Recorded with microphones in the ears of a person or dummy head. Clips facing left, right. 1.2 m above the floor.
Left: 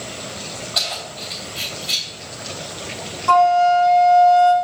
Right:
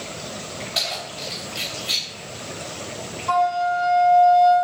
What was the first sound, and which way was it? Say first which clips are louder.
Keys jangling: left 1 dB; 15° right (ahead or behind).